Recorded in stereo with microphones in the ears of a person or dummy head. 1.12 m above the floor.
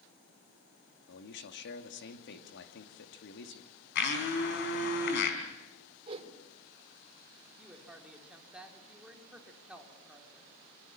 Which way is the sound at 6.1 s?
30° right (ahead or behind).